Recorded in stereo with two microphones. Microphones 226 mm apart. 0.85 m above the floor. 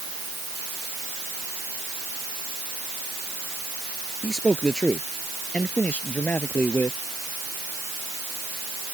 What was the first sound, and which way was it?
A man speaking, centre (ahead or behind).